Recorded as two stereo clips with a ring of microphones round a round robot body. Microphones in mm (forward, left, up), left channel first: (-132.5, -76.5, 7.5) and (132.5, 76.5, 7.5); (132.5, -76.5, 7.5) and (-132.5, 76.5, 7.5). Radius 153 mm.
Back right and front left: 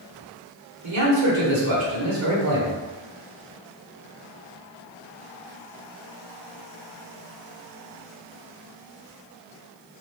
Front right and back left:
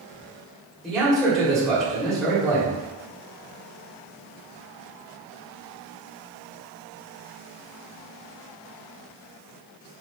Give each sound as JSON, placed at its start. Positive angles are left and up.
{"t": 0.8, "sound": "a man speaking", "azimuth_deg": 60, "distance_m": 1.5}